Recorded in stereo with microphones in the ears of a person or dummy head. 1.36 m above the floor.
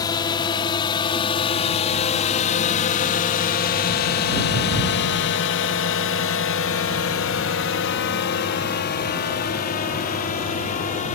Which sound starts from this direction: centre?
A drone, at 0.0 s.